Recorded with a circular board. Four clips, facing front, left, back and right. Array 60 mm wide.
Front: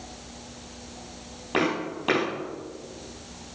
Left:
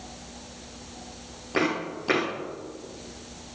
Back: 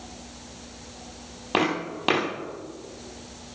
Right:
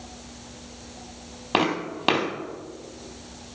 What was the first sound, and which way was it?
Footsteps, 110° right.